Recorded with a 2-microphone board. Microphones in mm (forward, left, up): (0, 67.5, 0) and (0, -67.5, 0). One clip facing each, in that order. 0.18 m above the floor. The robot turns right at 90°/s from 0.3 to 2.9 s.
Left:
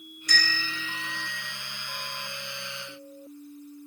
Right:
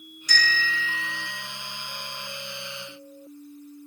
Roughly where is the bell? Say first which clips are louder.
Right 4 dB; left.